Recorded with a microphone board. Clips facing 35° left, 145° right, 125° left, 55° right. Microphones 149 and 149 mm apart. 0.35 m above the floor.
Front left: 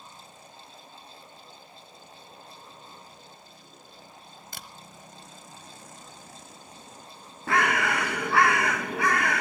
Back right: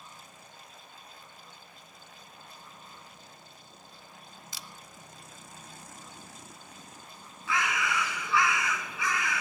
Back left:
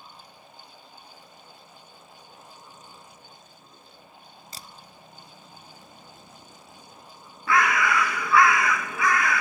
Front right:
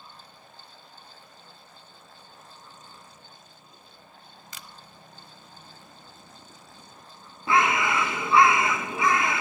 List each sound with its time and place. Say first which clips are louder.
4.5 s a camera shutter: front left 4 dB, back left 1 dB; 70° left, 1.4 m
7.5 s a bird: front left 6 dB, even; 10° left, 0.7 m